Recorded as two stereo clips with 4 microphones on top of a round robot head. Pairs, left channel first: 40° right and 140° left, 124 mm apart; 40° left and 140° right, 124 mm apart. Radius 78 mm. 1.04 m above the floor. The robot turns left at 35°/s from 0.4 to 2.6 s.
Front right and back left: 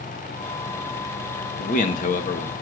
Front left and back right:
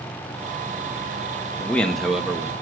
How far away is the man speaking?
About 1.3 m.